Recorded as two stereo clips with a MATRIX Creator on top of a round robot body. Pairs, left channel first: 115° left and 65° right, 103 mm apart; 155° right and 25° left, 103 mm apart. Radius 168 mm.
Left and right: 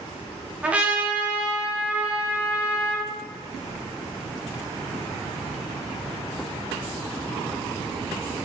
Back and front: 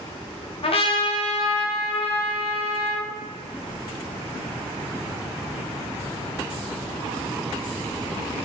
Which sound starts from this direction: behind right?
A trumpet, at 0.6 s.